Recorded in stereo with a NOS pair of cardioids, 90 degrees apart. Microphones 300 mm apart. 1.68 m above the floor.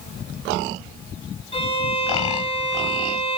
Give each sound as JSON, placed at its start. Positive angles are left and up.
{"t": 1.5, "sound": "a violin", "azimuth_deg": 20, "distance_m": 5.5}